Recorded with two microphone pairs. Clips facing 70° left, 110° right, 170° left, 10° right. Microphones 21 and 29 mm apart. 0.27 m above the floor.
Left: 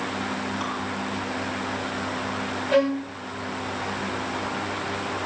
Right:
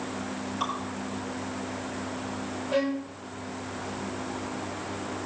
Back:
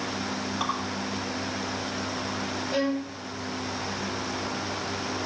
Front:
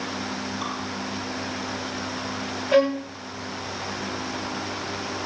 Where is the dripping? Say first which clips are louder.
Left 1 dB, back 5 dB; 175° left, 7 m.